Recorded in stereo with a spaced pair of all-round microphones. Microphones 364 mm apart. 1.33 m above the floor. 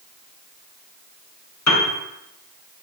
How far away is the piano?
About 0.8 m.